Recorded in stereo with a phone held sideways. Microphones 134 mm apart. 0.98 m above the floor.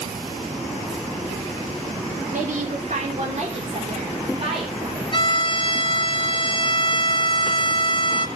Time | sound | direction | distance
2.3 | a woman speaking | 75° right (ahead or behind) | 3 m
5.1 | a violin | 35° left (ahead or behind) | 0.9 m